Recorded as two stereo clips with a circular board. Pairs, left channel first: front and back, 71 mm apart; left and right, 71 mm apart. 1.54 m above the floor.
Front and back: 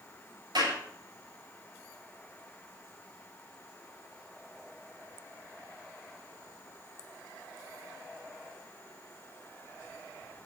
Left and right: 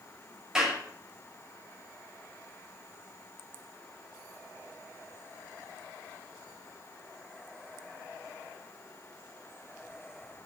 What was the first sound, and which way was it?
A clap, 170° right.